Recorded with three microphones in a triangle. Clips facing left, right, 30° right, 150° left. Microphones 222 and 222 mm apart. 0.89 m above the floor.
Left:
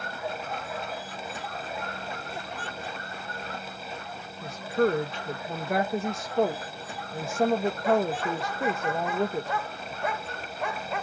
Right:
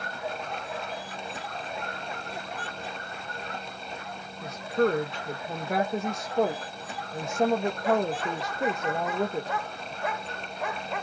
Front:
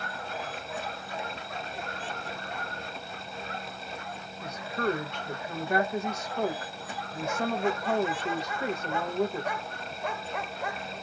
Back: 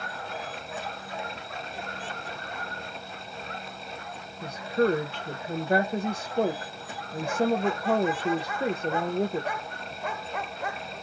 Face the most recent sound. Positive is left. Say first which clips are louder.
# even, back 6 dB
turn(degrees=175)